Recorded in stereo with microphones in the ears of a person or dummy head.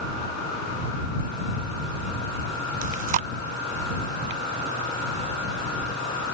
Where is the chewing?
45° right (ahead or behind).